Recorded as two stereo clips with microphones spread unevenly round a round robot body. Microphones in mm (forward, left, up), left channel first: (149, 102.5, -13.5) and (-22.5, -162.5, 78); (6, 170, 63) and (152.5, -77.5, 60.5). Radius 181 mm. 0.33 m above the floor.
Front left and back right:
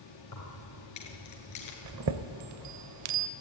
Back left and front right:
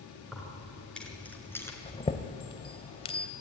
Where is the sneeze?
I don't hear a sneeze.